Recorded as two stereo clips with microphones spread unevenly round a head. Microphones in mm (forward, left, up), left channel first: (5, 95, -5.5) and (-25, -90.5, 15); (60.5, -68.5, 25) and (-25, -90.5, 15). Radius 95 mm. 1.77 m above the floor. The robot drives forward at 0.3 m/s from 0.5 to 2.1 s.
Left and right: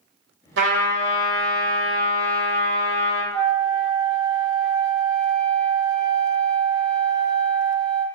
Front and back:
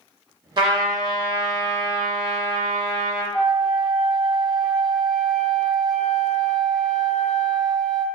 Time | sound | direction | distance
0.6 | a trumpet | 125° right | 1.1 m
3.3 | a flute | 55° right | 1.1 m